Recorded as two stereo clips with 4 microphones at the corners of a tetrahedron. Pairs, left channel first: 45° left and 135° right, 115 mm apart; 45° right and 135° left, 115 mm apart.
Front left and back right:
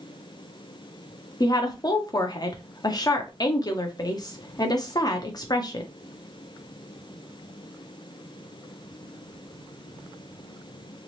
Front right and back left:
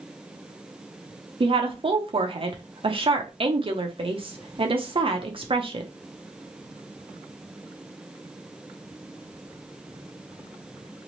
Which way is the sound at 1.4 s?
100° left.